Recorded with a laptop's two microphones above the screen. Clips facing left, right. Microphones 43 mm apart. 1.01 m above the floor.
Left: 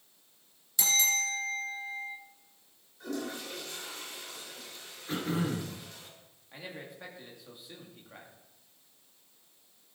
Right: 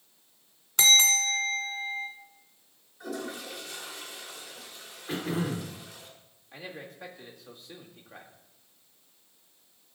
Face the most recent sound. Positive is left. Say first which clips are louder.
# right 2 dB
turn(degrees=10)  # may be behind; listen again after turning